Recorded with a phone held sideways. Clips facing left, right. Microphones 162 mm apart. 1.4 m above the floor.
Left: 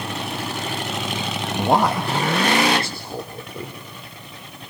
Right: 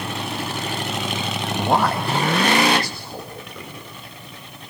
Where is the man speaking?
10° left (ahead or behind), 1.4 m; by 3.8 s 35° left (ahead or behind), 3.5 m.